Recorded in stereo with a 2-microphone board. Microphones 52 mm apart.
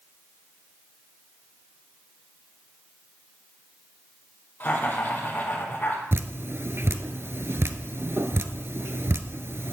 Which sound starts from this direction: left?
Laughter, at 4.6 s.